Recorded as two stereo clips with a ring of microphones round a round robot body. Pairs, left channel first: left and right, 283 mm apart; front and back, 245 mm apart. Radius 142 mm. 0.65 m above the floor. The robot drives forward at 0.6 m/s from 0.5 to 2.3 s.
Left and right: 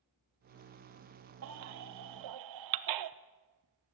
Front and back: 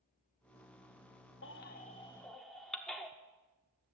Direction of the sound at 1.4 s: 50° right.